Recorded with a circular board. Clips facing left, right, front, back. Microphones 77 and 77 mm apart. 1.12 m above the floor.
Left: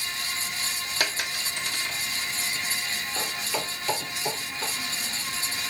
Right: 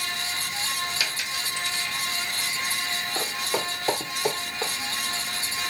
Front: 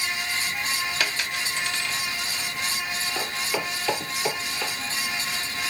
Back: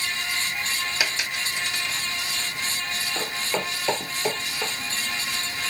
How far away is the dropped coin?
About 0.8 m.